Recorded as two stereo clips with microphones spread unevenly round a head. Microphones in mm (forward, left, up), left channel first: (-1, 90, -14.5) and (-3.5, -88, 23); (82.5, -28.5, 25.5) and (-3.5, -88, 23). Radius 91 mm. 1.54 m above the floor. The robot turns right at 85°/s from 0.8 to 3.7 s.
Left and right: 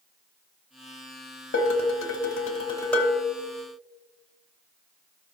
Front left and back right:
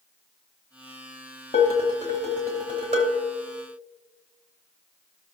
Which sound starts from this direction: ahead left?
Dishes clattering, at 1.5 s.